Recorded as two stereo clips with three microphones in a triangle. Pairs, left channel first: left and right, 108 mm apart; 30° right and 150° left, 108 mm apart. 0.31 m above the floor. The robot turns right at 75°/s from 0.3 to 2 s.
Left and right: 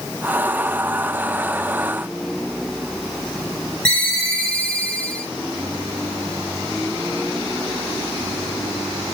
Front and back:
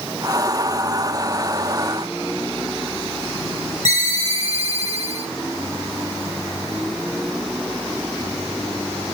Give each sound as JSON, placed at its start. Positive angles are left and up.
{"t": 3.9, "sound": "a ringtone", "azimuth_deg": 170, "distance_m": 3.5}